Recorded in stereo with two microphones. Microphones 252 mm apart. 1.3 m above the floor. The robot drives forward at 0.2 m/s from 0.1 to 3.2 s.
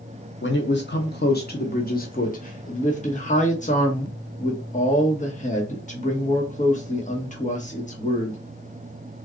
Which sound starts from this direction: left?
A man speaking, at 0.4 s.